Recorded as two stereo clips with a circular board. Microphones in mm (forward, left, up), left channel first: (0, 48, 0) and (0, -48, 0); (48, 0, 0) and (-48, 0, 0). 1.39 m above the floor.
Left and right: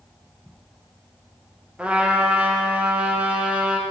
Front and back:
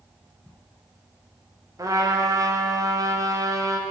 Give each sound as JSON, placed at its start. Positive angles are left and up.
{"t": 1.8, "sound": "a trumpet", "azimuth_deg": -160, "distance_m": 0.7}